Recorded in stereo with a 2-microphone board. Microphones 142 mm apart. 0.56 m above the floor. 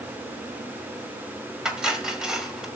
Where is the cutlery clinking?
5° right (ahead or behind), 1.9 m.